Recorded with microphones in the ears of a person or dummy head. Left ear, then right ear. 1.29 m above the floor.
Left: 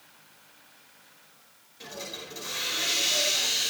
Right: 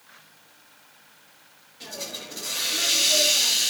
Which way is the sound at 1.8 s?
20° left (ahead or behind).